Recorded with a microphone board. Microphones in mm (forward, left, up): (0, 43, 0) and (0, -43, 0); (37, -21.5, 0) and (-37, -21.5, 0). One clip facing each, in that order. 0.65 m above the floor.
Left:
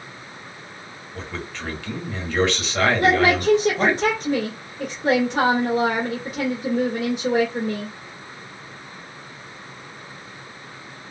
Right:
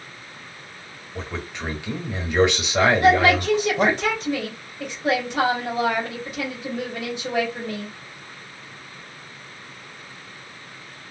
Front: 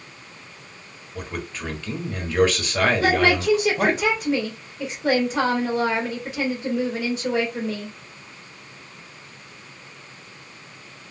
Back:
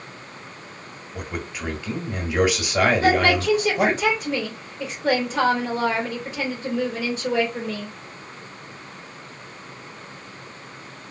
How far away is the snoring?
No snoring in this recording.